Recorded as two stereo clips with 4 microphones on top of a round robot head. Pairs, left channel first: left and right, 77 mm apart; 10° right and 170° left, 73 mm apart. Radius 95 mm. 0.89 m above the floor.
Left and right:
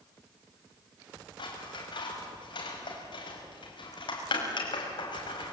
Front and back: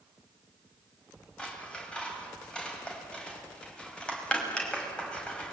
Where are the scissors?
65° left, 5.5 m.